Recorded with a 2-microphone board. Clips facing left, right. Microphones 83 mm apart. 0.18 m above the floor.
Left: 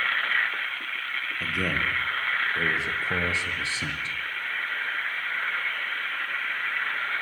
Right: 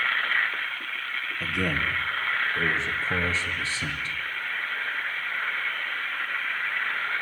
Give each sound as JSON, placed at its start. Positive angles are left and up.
{"t": 1.4, "sound": "a man speaking", "side_deg": 5, "distance_m": 5.0}